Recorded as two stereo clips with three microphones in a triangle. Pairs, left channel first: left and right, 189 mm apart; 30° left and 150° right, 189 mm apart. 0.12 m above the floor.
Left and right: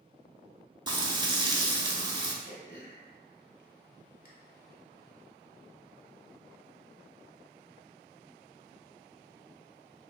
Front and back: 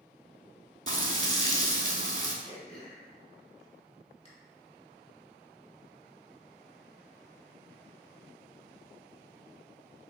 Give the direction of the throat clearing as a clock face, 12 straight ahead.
9 o'clock.